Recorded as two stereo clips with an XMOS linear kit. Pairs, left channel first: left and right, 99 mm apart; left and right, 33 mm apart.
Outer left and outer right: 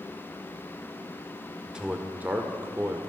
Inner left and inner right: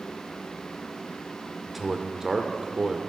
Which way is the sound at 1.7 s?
10° right (ahead or behind).